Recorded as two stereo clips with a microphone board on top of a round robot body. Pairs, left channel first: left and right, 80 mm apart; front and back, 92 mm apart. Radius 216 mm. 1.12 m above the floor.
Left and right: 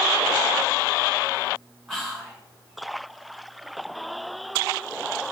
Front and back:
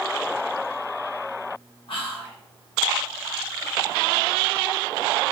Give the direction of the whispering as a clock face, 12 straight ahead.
12 o'clock.